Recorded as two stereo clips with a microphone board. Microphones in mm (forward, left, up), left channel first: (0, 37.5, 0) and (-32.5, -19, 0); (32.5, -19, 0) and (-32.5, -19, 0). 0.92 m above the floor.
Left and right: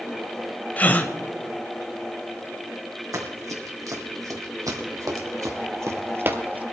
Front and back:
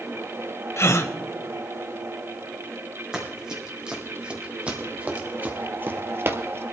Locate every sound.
0.8 s a gasp: 10° left, 0.9 m
3.1 s running footsteps: 100° right, 3 m; by 6.6 s 175° right, 1.2 m